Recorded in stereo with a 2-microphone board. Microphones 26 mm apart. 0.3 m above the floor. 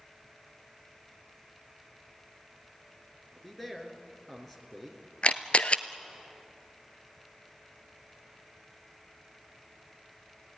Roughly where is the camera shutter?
Left.